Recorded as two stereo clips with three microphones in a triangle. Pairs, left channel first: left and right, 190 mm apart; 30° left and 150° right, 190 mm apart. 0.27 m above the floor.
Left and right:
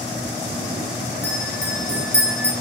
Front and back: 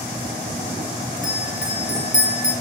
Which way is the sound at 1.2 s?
75° left.